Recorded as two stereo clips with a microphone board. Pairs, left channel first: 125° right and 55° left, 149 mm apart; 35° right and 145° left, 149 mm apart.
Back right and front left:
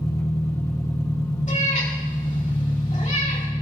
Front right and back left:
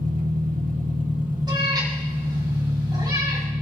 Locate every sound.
0.0 s an engine running: 165° left, 2 m
1.5 s a cat meowing: 155° right, 5.5 m